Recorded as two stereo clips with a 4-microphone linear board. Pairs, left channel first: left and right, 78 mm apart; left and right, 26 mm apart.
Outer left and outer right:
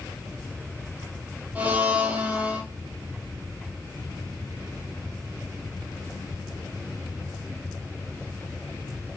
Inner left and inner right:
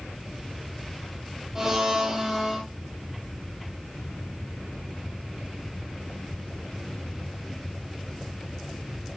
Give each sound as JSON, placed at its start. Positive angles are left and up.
{"t": 1.6, "sound": "a blender", "side_deg": -20, "distance_m": 6.5}